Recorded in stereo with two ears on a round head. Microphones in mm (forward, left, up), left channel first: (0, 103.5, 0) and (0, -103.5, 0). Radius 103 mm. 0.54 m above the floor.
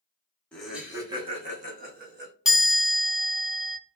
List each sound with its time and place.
0.5 s laughter: 5° left (ahead or behind), 0.9 m; by 2.3 s 50° right (ahead or behind), 1.2 m
2.5 s a chime: centre (ahead or behind), 1.4 m